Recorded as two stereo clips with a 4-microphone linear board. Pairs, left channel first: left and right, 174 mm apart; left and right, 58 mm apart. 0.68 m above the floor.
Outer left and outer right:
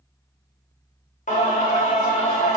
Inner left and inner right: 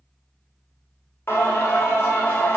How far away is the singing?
About 0.6 m.